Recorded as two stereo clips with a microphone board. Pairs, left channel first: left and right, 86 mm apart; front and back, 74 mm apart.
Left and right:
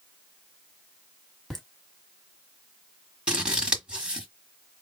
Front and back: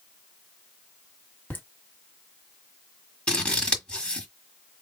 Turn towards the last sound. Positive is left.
turn(degrees=-35)